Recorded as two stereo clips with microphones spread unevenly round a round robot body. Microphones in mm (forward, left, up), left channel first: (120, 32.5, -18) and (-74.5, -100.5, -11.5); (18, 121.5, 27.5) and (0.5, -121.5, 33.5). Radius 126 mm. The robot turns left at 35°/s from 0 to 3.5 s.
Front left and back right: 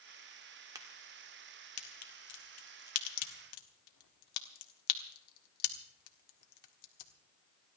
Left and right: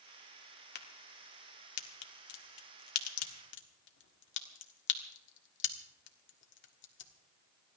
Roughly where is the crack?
Behind left.